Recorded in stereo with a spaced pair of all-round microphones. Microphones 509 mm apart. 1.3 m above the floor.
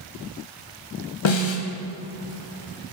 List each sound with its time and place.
1.2 s a snare drum: 70° left (ahead or behind), 0.8 m